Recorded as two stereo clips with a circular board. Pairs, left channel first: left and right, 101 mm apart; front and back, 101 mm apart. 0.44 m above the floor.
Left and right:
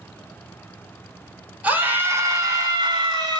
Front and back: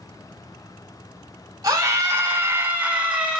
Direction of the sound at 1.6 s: 155° right.